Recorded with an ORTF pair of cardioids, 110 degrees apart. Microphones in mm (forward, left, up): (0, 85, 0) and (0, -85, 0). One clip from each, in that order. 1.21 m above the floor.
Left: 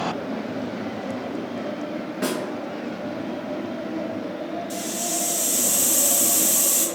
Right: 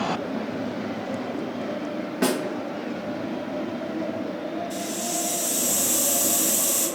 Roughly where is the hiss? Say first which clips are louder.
Left 1 dB; ahead left.